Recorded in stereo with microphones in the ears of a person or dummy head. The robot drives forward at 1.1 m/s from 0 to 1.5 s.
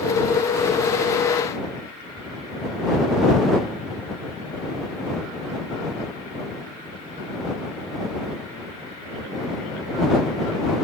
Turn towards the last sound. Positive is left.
No sound to turn to.